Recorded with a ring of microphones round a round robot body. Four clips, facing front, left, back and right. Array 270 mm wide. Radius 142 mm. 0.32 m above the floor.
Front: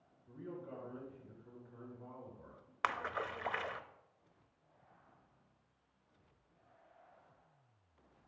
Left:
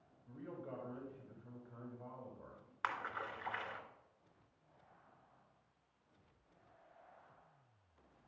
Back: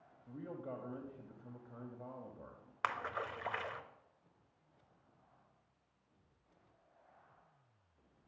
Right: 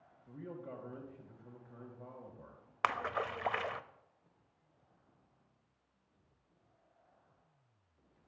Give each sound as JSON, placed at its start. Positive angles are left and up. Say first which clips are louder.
{"t": 0.3, "sound": "a man speaking", "louder": "right 2 dB, back 2 dB", "azimuth_deg": -160, "distance_m": 1.6}
{"t": 2.8, "sound": "a splash", "louder": "right 7 dB, front 1 dB", "azimuth_deg": -85, "distance_m": 0.6}